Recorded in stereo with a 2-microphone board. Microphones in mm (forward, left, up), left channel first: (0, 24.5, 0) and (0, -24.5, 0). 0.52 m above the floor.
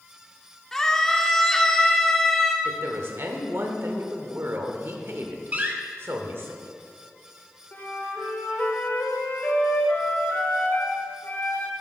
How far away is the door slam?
About 1.1 m.